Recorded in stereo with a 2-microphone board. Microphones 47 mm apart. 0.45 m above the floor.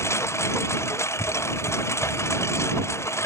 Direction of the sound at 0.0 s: 70° left (ahead or behind).